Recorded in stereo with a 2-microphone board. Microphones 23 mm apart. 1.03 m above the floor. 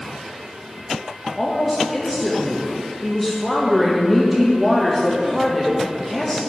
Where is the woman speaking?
5° left (ahead or behind), 0.8 m.